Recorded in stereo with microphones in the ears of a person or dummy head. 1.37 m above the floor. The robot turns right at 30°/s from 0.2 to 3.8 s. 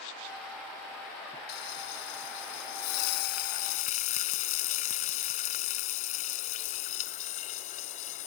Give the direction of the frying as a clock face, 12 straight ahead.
10 o'clock.